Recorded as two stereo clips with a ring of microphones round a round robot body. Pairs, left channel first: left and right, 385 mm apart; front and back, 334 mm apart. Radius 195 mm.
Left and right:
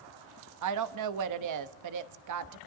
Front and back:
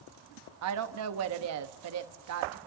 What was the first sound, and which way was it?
A woman speaking, 135° right.